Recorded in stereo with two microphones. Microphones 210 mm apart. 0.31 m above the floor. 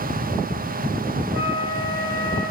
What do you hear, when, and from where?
1.3 s a flute: 55° right (ahead or behind), 4 m